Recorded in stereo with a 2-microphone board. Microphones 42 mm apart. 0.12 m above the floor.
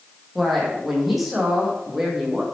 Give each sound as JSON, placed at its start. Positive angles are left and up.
{"t": 0.3, "sound": "a woman speaking", "side_deg": 0, "distance_m": 5.5}